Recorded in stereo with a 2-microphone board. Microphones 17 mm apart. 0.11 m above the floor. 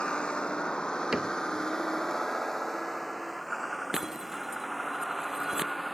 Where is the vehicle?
75° left (ahead or behind); by 5.9 s 10° right (ahead or behind).